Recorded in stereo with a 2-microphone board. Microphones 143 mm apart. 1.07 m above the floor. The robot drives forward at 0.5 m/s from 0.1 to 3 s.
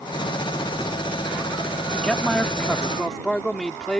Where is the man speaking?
5° left (ahead or behind).